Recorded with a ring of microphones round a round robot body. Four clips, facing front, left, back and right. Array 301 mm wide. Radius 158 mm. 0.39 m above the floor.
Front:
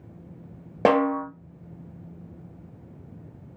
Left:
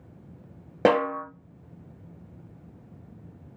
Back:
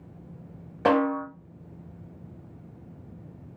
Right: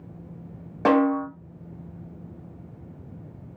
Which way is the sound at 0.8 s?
40° left.